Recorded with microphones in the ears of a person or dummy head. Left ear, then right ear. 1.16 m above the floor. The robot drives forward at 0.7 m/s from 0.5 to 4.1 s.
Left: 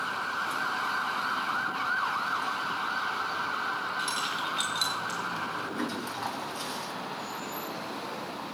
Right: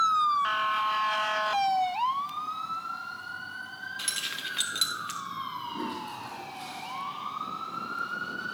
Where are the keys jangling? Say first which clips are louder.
Left 3 dB; 15° right (ahead or behind), 1.0 m.